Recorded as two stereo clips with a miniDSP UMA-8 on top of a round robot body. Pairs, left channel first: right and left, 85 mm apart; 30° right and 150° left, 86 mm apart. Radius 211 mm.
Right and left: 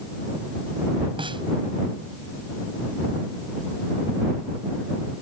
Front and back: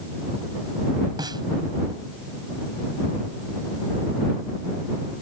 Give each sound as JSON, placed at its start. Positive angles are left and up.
{"t": 1.2, "sound": "a snare drum", "azimuth_deg": 110}